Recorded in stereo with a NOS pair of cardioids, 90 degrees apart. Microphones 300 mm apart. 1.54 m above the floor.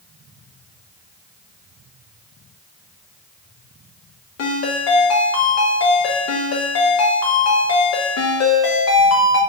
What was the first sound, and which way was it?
A ringtone, 60° left.